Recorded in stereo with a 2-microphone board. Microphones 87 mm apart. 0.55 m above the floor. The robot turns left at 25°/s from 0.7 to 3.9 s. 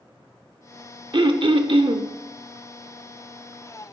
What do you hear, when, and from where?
1.1 s throat clearing: 60° right (ahead or behind), 0.6 m; by 2.0 s 70° right (ahead or behind), 0.6 m